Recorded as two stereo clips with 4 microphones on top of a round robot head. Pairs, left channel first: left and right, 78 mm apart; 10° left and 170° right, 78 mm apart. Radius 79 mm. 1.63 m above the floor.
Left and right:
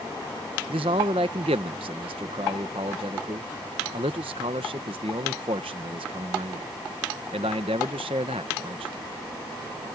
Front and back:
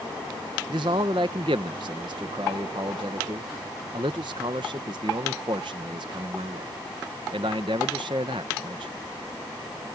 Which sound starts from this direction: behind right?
A man speaking, at 0.7 s.